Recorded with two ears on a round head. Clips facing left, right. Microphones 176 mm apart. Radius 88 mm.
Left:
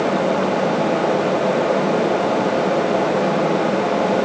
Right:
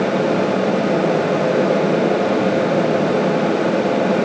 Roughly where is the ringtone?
No ringtone in this recording.